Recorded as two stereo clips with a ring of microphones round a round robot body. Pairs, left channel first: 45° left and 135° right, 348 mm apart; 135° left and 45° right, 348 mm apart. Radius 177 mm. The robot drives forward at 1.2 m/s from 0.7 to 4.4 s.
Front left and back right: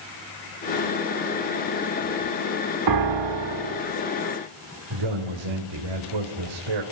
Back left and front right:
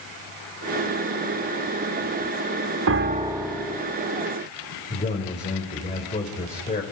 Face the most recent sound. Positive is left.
turn(degrees=-155)